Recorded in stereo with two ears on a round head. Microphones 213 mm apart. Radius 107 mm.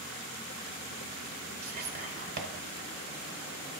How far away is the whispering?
About 1.8 m.